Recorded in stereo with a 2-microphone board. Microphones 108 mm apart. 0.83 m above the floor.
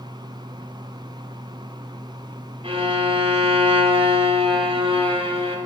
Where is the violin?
55° right (ahead or behind), 1.7 m.